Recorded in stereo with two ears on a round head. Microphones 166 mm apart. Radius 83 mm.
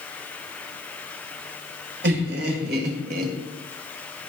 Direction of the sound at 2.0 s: 60° right (ahead or behind).